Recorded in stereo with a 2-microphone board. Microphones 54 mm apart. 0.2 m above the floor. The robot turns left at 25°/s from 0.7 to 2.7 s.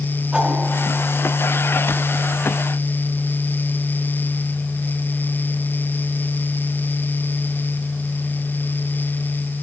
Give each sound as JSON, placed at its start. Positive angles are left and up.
{"t": 0.3, "sound": "a whoosh", "side_deg": -20, "distance_m": 1.4}